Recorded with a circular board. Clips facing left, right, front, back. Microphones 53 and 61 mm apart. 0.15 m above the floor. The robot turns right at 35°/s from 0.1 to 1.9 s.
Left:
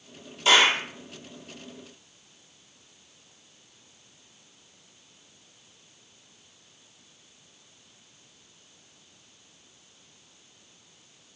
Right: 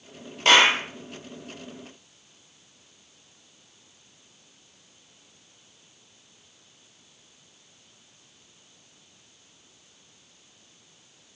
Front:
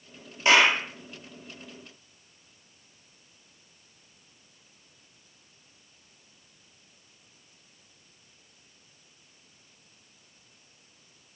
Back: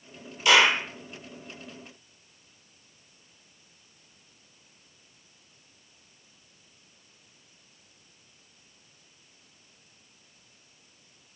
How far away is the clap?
About 3.5 m.